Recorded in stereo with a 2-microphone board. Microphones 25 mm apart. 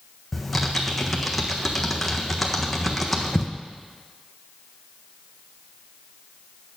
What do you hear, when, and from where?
0.3 s typing on a keyboard: centre (ahead or behind), 1.4 m